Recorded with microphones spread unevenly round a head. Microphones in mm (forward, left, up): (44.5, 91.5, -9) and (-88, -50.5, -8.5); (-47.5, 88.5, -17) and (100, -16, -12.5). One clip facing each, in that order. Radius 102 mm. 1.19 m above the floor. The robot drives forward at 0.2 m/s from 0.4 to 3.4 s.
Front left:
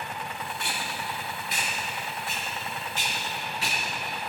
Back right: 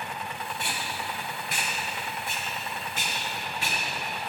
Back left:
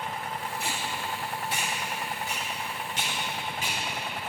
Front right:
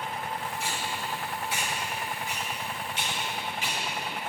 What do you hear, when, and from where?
0.6 s tape being pulled: 175° right, 3 m